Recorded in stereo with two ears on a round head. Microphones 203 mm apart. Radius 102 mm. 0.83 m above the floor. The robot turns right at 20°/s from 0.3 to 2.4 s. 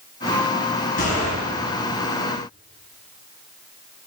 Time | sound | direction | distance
1.0 | a gunshot | 40° left (ahead or behind) | 6 m